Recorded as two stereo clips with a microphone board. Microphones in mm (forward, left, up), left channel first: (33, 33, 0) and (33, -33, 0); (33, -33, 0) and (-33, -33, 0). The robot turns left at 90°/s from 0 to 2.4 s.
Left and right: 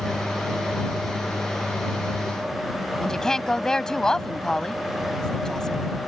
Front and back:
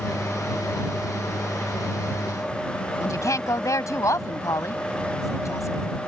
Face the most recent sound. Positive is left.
turn(degrees=10)